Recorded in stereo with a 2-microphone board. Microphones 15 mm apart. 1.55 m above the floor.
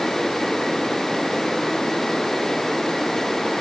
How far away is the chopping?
I don't hear chopping.